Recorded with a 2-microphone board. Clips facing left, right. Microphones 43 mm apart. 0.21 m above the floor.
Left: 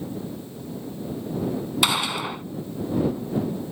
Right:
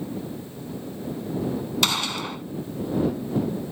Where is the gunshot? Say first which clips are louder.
Left 3 dB; 10° left (ahead or behind).